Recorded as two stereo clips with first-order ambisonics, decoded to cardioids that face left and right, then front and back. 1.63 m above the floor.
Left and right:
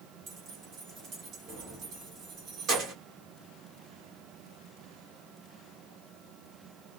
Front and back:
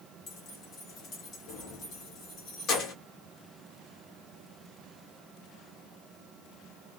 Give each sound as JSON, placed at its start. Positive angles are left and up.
{"t": 0.3, "sound": "keys jangling", "azimuth_deg": -40, "distance_m": 1.3}